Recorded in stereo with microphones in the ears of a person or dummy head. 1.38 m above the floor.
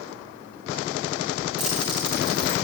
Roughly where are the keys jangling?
Centre.